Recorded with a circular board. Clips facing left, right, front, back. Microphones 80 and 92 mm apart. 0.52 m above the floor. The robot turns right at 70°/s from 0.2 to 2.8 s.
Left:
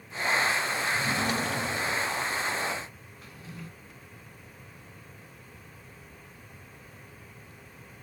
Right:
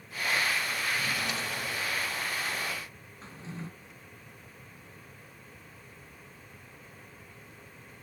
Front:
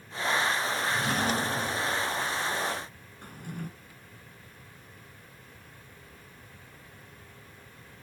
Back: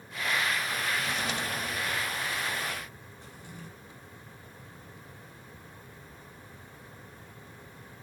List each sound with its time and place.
0.9 s a drawer: 15° left, 1.1 m; by 2.0 s 95° left, 1.1 m
3.2 s a drawer: 30° right, 2.0 m